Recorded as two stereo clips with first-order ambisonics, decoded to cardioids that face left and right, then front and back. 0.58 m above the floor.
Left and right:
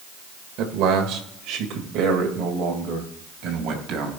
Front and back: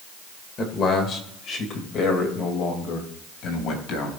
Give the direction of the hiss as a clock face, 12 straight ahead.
I don't hear a hiss.